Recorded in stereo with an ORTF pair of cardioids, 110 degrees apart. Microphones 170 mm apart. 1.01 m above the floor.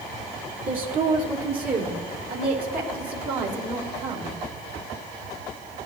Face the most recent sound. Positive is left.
turn(degrees=-70)